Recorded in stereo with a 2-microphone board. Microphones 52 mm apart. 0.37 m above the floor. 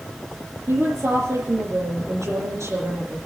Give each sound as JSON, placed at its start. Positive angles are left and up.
{"t": 0.7, "sound": "a woman speaking", "side_deg": -75, "distance_m": 5.5}